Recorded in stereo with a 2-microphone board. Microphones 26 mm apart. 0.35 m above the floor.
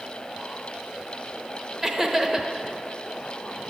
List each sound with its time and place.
1.8 s laughter: 15° right (ahead or behind), 1.0 m